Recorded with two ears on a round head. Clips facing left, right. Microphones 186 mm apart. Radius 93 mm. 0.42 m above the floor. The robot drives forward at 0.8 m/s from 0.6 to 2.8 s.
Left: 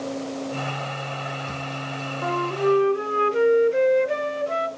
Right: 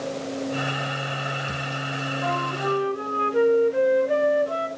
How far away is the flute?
About 0.7 m.